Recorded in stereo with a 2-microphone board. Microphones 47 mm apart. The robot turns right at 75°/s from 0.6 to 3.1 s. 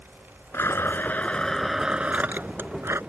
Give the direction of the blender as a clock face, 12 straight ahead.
9 o'clock.